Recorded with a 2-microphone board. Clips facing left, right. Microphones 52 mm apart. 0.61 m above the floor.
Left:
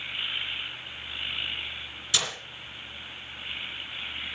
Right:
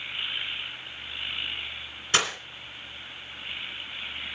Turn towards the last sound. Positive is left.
turn(degrees=-50)  # may be behind; listen again after turning